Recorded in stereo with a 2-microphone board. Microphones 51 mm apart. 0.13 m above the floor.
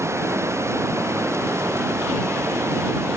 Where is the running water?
65° right (ahead or behind).